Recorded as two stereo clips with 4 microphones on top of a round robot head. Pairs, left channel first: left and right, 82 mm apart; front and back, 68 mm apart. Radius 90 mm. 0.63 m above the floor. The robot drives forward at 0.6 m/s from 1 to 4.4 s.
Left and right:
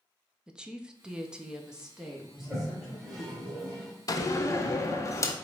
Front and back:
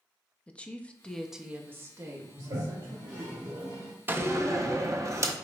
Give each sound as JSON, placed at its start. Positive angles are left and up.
{"t": 0.5, "sound": "a woman speaking", "azimuth_deg": -30, "distance_m": 0.5}
{"t": 2.4, "sound": "a toilet flushing", "azimuth_deg": 180, "distance_m": 2.0}
{"t": 4.1, "sound": "a door slam", "azimuth_deg": 125, "distance_m": 0.5}